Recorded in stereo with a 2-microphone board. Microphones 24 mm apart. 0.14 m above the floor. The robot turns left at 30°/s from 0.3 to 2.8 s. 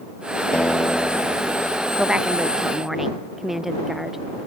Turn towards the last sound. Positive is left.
turn(degrees=-10)  # may be behind; listen again after turning